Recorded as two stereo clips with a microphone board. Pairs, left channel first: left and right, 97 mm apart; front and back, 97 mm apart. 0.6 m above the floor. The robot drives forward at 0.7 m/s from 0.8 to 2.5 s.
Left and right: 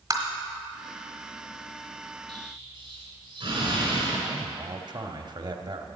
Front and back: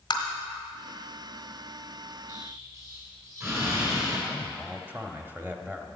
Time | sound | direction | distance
0.1 | tapping | 40° right | 1.4 m
2.3 | an explosion | 125° right | 3 m
4.3 | a man speaking | 120° right | 0.9 m